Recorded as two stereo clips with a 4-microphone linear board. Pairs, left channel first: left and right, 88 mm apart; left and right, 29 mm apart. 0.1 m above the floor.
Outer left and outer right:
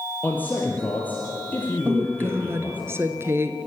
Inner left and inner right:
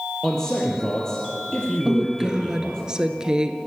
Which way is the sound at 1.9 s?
30° right (ahead or behind).